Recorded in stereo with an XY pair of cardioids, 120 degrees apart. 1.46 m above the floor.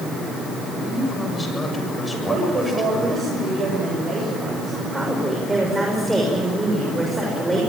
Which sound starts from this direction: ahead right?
A woman speaking, at 2.1 s.